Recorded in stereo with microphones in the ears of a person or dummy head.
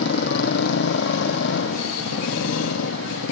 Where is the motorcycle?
65° left (ahead or behind); by 3.3 s 75° left (ahead or behind).